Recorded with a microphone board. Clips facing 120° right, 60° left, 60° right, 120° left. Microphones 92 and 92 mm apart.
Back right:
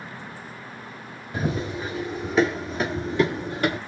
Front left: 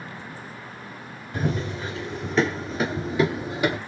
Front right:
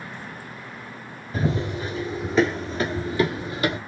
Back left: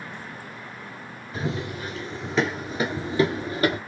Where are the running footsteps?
55° right, 1.1 m; by 3.8 s 135° left, 1.2 m.